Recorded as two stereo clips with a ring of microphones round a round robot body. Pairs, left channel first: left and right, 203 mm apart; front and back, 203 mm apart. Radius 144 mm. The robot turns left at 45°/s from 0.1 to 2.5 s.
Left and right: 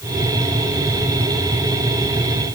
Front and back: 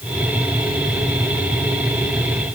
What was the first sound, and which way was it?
Only background noise.